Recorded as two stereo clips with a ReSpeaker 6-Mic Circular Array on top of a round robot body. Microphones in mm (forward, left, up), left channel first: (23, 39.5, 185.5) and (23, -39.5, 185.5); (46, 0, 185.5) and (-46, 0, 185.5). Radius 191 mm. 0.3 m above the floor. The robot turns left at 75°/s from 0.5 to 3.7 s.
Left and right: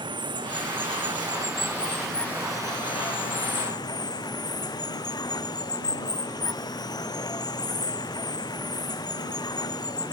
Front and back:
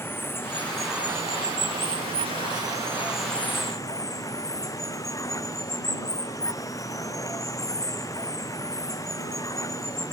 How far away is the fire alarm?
No fire alarm in this recording.